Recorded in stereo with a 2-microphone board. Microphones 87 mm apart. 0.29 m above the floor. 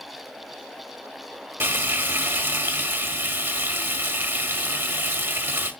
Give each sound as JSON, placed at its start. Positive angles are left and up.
{"t": 1.6, "sound": "frying", "side_deg": -25, "distance_m": 1.0}